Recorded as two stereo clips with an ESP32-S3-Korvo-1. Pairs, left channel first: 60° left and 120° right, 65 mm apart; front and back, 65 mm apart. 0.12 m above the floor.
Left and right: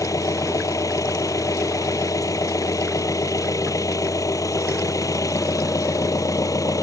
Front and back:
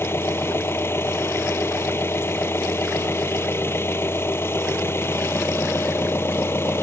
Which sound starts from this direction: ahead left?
An engine running, at 0.0 s.